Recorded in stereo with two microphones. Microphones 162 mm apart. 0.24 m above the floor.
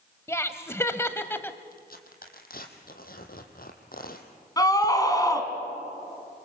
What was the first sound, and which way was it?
Laughter, 15° left (ahead or behind).